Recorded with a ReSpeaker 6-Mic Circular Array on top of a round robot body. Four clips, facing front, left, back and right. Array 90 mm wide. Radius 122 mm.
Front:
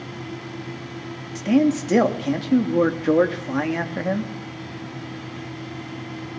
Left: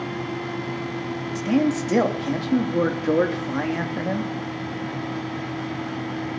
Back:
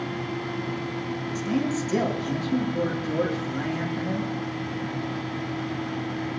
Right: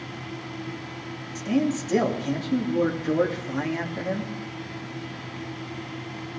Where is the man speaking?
25° left, 2.5 m.